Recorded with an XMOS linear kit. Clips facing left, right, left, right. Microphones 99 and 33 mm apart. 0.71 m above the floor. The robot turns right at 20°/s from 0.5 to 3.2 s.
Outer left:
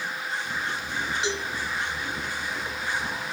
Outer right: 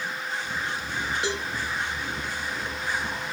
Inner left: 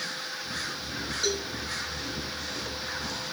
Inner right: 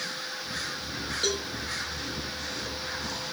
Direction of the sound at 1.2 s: 50° right (ahead or behind).